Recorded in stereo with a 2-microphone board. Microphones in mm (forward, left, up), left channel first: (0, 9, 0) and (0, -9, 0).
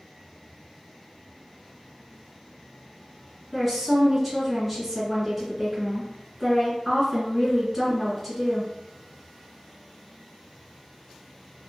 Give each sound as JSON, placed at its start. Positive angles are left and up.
{"t": 3.5, "sound": "a woman speaking", "side_deg": -5, "distance_m": 1.8}